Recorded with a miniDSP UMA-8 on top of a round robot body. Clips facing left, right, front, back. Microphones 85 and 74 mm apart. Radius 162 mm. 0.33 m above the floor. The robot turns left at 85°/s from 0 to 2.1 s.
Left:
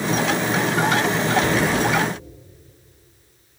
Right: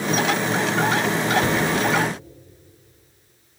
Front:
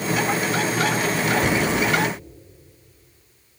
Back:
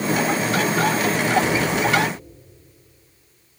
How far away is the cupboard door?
About 1.2 m.